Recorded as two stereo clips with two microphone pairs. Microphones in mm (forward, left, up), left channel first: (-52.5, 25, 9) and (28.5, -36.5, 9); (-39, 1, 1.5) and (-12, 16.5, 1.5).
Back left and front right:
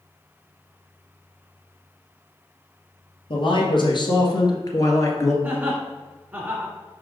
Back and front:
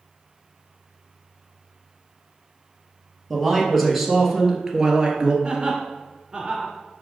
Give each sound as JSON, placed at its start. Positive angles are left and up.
{"t": 3.3, "sound": "a man speaking", "azimuth_deg": 130, "distance_m": 2.0}
{"t": 5.4, "sound": "laughter", "azimuth_deg": 15, "distance_m": 1.8}